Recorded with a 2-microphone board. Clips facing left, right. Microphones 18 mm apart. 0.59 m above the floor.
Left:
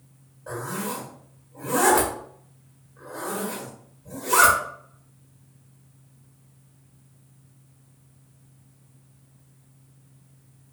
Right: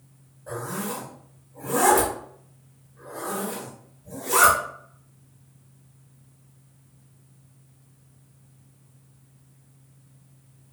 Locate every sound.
0.5 s a zipper: 50° left (ahead or behind), 1.1 m